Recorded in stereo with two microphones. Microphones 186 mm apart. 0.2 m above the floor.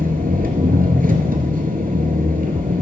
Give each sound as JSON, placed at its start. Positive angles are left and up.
{"t": 0.0, "sound": "an engine running", "side_deg": -55, "distance_m": 1.1}